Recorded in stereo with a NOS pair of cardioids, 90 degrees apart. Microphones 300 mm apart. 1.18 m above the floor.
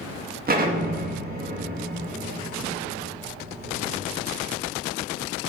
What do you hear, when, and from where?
0.5 s an explosion: 30° right, 1.7 m